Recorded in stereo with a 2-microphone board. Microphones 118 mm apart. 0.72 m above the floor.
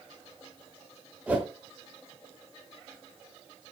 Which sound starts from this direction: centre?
A whoosh, at 1.3 s.